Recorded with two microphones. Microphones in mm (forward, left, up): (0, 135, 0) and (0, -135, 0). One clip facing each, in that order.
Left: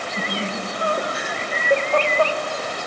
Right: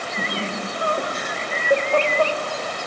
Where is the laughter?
35° left (ahead or behind), 2.5 m; by 2.4 s 25° right (ahead or behind), 2.5 m.